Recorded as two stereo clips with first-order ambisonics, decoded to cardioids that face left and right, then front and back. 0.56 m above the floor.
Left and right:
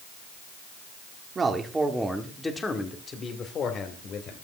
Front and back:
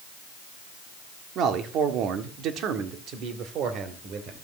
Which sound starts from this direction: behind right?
A man speaking, at 1.4 s.